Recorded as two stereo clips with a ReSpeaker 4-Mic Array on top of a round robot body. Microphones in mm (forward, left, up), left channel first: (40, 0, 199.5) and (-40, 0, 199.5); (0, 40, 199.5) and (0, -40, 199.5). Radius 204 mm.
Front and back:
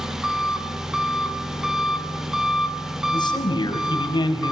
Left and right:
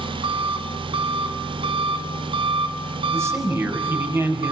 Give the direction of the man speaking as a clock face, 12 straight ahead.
1 o'clock.